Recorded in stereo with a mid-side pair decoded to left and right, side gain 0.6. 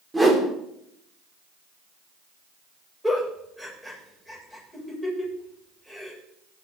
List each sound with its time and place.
0.1 s a whoosh: 10° right, 4 m
3.0 s a giggle: straight ahead, 8 m